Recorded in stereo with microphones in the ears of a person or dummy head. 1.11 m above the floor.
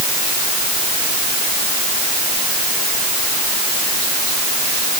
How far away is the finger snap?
I don't hear a finger snap.